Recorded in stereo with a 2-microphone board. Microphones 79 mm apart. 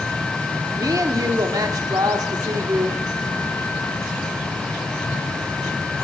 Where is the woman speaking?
55° right (ahead or behind), 1.3 m.